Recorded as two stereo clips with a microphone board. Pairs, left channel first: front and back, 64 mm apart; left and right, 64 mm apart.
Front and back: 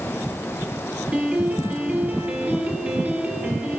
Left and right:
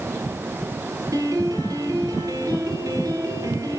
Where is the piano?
115° right, 6 m.